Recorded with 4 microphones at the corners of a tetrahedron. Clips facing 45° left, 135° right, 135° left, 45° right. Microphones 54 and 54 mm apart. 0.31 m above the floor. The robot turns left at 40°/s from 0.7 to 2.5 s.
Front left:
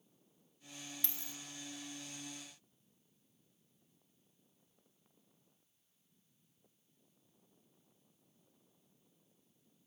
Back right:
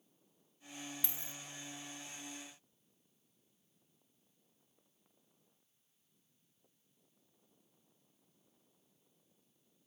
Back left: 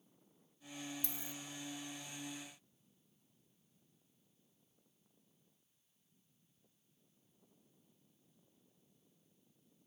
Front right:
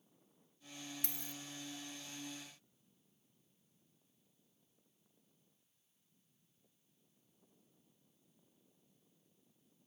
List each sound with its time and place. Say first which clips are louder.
1.0 s a dropped coin: back right 1 dB, back left 1 dB; 60° right, 0.6 m; by 1.4 s 75° right, 0.6 m